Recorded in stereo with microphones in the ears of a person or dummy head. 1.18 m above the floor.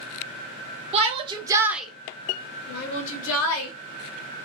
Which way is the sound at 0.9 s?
35° right (ahead or behind).